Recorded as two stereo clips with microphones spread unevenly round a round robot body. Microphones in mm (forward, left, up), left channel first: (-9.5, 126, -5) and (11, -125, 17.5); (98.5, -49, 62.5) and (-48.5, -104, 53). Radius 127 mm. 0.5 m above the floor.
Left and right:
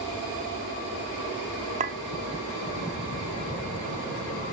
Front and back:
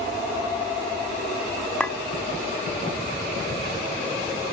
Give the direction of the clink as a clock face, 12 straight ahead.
2 o'clock.